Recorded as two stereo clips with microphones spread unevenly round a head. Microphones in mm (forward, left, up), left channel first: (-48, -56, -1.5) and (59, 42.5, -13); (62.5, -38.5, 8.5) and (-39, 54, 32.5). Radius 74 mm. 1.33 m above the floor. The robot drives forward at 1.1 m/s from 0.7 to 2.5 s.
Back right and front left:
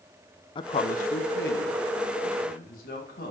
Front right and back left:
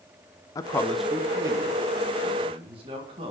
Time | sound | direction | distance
0.6 | a man speaking | 85° right | 0.6 m